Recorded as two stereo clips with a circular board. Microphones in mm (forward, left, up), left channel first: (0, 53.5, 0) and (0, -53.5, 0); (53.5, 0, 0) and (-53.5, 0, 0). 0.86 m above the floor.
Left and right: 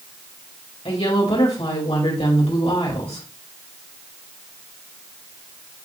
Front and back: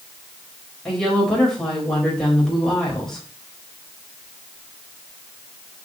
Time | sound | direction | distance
0.8 | a woman speaking | 85° left | 4.5 m